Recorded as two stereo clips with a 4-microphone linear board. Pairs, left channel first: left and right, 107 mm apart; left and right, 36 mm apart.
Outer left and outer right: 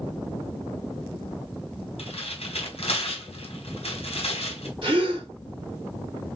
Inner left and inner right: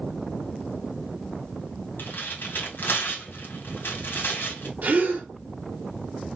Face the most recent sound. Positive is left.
turn(degrees=-55)  # may be behind; listen again after turning